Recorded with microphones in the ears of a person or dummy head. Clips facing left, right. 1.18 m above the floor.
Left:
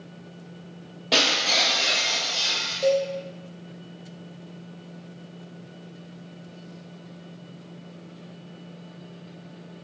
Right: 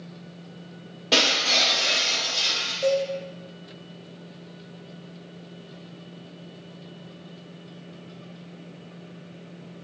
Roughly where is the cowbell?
Centre.